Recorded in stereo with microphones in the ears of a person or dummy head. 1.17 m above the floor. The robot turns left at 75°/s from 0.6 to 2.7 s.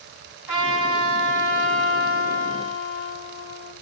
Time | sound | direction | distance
0.5 | a trumpet | 170° right | 2 m